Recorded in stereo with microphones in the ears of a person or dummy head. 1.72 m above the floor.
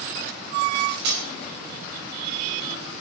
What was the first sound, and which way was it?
Cutlery clinking, 70° right (ahead or behind).